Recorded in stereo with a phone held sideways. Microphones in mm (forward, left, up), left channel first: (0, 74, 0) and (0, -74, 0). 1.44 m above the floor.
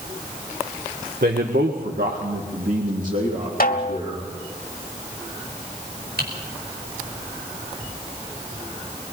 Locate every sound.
1.2 s a man speaking: 70° right (ahead or behind), 1.6 m; by 4.3 s 45° right (ahead or behind), 4 m
3.6 s a snare drum: 65° left (ahead or behind), 2 m
6.2 s typing on a keyboard: 85° right, 5 m